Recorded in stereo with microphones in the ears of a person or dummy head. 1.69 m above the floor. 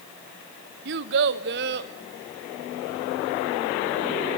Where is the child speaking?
60° right (ahead or behind), 1.0 m; by 1.9 s 55° right (ahead or behind), 2.5 m.